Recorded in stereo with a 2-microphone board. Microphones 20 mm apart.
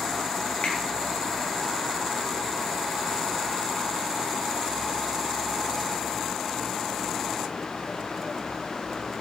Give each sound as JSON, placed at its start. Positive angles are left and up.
{"t": 0.6, "sound": "a finger snap", "side_deg": 70, "distance_m": 5.0}